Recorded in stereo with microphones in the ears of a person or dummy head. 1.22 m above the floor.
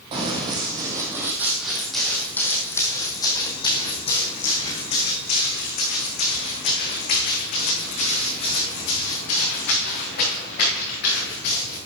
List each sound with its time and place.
0.1 s running footsteps: 25° right (ahead or behind), 2 m; by 11.8 s 60° left (ahead or behind), 6 m